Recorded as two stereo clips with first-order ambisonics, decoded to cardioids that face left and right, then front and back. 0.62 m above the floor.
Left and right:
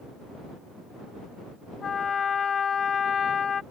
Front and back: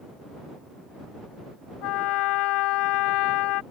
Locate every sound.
1.8 s a trumpet: 25° left